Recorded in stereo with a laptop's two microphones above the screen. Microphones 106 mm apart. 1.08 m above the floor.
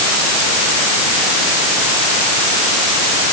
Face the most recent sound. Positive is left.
No sound to turn to.